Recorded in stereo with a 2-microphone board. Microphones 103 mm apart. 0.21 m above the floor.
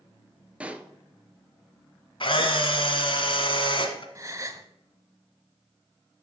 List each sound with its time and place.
0.6 s a pop: 10° right (ahead or behind), 0.6 m
2.2 s a camera shutter: 55° left (ahead or behind), 1.0 m
4.2 s a gasp: 30° right (ahead or behind), 0.6 m